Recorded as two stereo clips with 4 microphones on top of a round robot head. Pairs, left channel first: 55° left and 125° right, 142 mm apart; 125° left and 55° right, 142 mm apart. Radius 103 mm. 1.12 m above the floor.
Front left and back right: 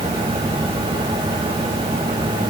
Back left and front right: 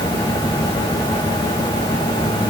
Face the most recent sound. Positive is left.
No sound to turn to.